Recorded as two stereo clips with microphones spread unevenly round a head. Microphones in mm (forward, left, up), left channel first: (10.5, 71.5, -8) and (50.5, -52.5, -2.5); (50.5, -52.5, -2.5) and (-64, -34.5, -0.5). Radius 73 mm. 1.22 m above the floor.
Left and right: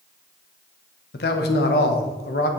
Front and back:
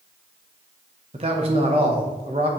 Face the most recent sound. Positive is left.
turn(degrees=115)